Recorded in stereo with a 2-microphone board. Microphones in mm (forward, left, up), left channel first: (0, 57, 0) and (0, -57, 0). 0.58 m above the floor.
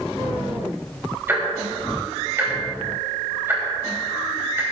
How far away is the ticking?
About 3.5 m.